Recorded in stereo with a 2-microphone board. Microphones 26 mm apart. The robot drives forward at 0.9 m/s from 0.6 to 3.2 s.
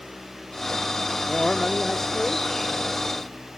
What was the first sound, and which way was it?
A man speaking, 20° left (ahead or behind).